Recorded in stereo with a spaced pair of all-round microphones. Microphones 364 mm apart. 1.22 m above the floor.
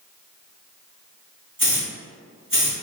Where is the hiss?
70° right (ahead or behind), 1.6 m.